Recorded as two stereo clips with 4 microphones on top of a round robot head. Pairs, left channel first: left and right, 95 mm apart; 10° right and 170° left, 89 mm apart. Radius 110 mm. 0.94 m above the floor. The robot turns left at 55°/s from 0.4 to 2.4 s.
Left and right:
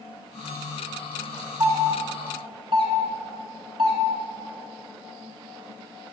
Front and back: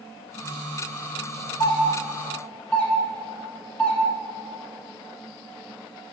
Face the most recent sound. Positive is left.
turn(degrees=-85)